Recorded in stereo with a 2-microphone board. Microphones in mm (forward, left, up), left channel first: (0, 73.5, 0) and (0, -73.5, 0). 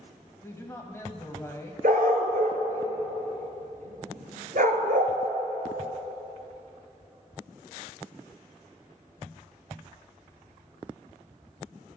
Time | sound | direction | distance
0.4 | a man speaking | 20° left (ahead or behind) | 0.9 m
1.8 | a dog barking | 75° right (ahead or behind) | 0.8 m